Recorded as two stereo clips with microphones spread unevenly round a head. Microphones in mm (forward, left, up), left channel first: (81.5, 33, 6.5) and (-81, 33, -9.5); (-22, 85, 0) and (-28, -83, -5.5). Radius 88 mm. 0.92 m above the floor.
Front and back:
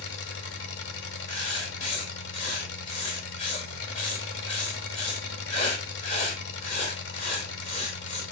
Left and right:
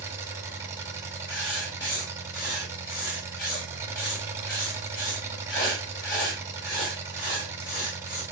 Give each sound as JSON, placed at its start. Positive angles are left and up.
{"t": 0.0, "sound": "an engine running", "azimuth_deg": -15, "distance_m": 1.7}
{"t": 1.3, "sound": "writing", "azimuth_deg": 45, "distance_m": 4.0}